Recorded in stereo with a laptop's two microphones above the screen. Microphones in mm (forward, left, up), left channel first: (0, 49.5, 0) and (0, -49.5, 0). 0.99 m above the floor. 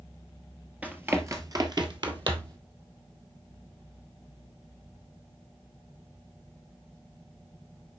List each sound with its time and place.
0.8 s running footsteps: 15° right (ahead or behind), 1.3 m; by 2.6 s 55° right (ahead or behind), 1.9 m